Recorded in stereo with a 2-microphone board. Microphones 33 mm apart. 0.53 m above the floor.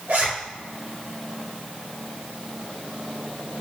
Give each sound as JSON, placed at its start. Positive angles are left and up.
{"t": 0.1, "sound": "a zipper", "side_deg": -70, "distance_m": 1.9}